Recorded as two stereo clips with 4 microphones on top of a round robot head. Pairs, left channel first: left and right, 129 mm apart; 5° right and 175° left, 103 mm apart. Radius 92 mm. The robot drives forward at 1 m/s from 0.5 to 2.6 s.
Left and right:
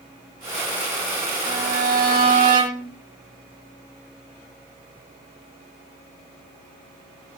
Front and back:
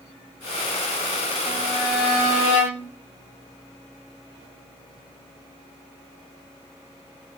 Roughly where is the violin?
Right.